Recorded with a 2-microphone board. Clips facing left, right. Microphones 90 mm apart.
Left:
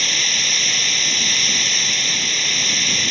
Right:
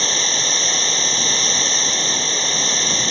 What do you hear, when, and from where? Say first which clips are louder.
0.0 s running water: right 3 dB; 30° right (ahead or behind)